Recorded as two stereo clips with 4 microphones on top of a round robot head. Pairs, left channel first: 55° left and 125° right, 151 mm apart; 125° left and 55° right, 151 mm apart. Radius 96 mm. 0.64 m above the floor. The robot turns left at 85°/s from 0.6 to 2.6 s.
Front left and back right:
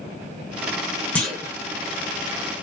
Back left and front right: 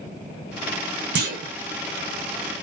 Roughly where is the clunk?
Ahead right.